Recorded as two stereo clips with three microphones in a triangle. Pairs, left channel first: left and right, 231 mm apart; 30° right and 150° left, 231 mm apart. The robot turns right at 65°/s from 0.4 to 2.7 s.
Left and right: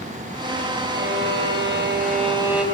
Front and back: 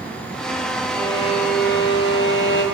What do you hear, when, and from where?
0.9 s a violin: 115° right, 2 m; by 2.6 s straight ahead, 2 m